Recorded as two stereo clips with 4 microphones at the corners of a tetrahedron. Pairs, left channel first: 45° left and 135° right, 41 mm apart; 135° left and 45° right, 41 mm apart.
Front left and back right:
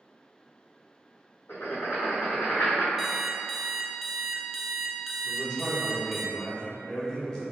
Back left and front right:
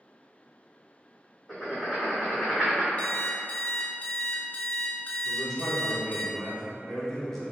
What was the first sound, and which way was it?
Writing, 45° left.